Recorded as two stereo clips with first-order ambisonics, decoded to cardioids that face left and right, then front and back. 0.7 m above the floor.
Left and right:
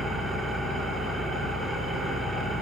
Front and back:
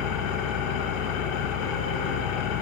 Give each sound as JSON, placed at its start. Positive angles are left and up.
{"t": 0.0, "sound": "an engine running", "azimuth_deg": -10, "distance_m": 4.5}